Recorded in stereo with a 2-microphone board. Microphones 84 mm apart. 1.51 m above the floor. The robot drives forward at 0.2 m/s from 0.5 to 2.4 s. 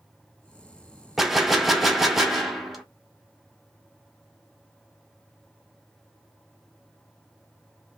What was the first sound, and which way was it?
A gunshot, centre (ahead or behind).